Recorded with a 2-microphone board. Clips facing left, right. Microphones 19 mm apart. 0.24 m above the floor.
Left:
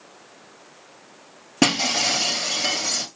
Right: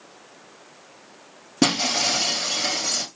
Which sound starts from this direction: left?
Breaking glass, at 1.6 s.